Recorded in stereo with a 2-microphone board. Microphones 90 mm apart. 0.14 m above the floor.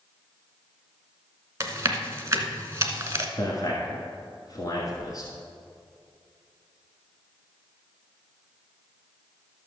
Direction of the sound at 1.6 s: 30° right (ahead or behind).